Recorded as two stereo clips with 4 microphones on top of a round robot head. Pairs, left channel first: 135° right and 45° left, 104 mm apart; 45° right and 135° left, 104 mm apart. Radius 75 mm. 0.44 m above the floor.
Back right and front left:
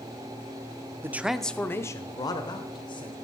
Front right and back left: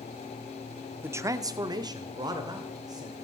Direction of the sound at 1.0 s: 90° left.